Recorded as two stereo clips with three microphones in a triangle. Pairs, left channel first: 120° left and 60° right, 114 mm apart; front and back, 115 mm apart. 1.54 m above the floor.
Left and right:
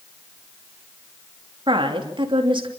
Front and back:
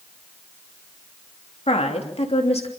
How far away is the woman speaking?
About 3 m.